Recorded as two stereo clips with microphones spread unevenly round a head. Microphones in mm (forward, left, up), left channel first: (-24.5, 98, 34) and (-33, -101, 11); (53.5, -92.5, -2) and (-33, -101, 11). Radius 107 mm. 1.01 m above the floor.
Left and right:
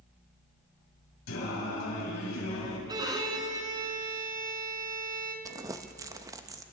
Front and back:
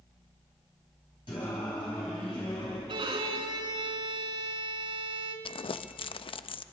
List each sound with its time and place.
1.3 s singing: 75° left, 4.5 m
2.9 s a violin: 165° right, 3 m
5.5 s crumpling: 20° right, 0.6 m